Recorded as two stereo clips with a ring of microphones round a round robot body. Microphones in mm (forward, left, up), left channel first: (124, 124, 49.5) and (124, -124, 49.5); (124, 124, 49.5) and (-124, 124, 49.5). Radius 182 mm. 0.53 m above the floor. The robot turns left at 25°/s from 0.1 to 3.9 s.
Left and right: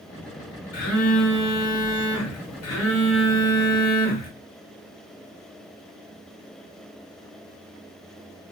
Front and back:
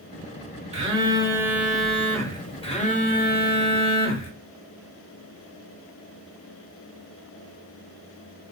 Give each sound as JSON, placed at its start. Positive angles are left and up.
{"t": 0.7, "sound": "a phone buzzing", "azimuth_deg": 115, "distance_m": 1.2}